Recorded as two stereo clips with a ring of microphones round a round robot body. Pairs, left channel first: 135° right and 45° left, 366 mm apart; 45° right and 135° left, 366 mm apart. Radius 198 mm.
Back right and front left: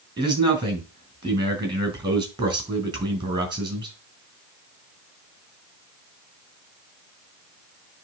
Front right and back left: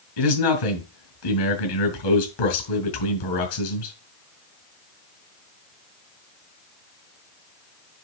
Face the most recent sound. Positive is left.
turn(degrees=-35)